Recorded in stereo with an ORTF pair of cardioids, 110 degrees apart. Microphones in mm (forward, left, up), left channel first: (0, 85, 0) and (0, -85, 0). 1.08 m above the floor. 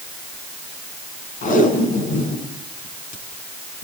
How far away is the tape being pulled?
About 7.5 m.